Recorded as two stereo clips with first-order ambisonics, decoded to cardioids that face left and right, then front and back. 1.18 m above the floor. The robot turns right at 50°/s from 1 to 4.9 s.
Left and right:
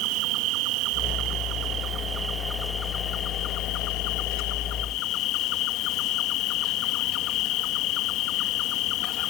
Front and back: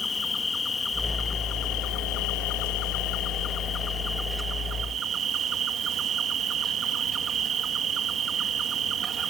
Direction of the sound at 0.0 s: 75° right.